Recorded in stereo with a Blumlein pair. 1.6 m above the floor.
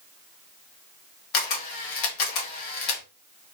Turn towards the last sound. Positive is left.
turn(degrees=40)